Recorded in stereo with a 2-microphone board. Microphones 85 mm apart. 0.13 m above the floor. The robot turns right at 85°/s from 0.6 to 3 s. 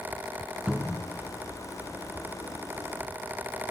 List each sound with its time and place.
0.7 s a cupboard door: 5° right (ahead or behind), 0.5 m; by 1.1 s 5° left (ahead or behind), 0.5 m